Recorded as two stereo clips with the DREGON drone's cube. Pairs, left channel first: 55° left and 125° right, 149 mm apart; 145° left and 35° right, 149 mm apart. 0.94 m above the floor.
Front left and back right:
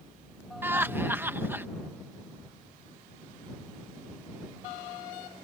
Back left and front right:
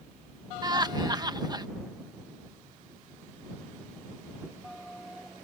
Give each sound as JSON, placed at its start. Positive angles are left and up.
{"t": 0.6, "sound": "laughter", "azimuth_deg": -65}